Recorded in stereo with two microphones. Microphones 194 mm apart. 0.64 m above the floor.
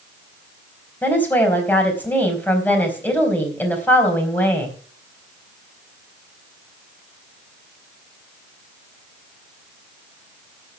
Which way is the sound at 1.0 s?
10° left (ahead or behind).